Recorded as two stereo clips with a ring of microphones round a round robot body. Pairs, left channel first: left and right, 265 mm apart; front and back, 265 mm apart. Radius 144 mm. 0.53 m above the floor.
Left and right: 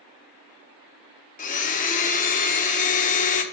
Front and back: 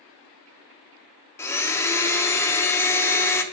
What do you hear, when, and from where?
1.4 s a blender: 70° left, 0.7 m